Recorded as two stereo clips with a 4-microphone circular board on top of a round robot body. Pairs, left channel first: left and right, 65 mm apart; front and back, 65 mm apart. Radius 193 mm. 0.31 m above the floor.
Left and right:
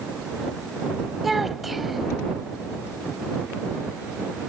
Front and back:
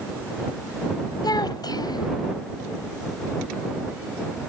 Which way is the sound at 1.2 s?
Straight ahead.